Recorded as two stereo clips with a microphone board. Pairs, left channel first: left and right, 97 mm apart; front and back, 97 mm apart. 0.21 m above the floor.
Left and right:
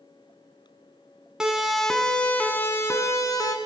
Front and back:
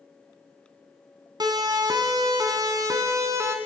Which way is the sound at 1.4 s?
170° right.